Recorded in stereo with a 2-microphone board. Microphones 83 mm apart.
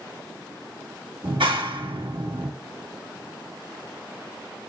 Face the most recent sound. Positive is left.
turn(degrees=-85)